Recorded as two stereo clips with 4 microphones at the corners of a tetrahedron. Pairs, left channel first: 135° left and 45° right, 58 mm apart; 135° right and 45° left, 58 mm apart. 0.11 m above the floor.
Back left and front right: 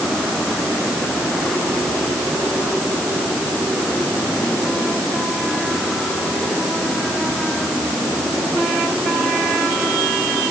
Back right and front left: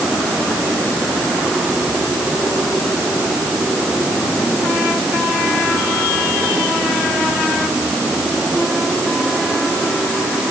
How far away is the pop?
No pop in this recording.